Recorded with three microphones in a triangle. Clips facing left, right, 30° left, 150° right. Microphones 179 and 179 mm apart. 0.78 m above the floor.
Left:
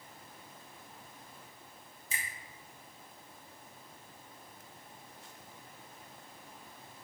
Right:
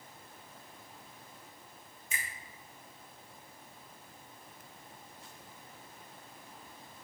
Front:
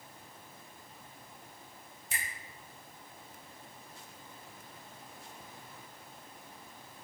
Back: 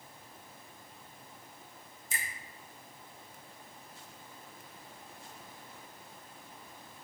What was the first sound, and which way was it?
A finger snap, 40° left.